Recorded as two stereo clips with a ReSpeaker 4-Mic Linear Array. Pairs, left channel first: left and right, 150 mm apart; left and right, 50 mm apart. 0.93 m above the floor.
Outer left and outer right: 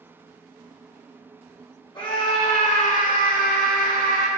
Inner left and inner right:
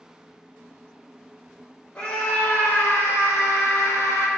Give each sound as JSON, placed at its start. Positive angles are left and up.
{"t": 1.9, "sound": "a scream", "side_deg": 30, "distance_m": 2.5}